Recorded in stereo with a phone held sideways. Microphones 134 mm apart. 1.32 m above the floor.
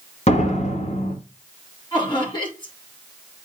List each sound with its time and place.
0.3 s a door slam: 50° left (ahead or behind), 3.5 m
1.9 s laughter: 35° left (ahead or behind), 4.5 m